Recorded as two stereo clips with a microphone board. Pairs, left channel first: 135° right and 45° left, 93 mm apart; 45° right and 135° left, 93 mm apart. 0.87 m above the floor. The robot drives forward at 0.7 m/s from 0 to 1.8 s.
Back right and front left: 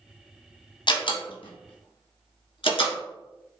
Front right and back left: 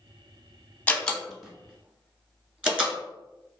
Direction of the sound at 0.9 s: 115° right.